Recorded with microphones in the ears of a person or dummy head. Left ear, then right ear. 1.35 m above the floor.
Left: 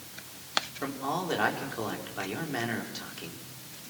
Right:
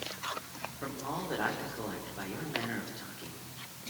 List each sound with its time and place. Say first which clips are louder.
0.8 s a man speaking: left 5 dB; 85° left, 4.5 m